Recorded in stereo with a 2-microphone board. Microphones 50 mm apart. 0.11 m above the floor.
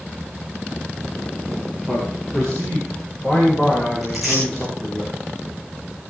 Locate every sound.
1.9 s a man speaking: 5° left (ahead or behind), 8.5 m; by 5.0 s 10° left (ahead or behind), 11.5 m
4.0 s tearing paper: 5° left (ahead or behind), 8 m